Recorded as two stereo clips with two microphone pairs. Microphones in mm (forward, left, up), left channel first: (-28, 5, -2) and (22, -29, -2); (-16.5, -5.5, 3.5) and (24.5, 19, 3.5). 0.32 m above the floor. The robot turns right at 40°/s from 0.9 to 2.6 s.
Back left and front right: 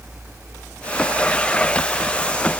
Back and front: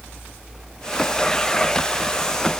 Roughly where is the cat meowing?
I don't hear a cat meowing.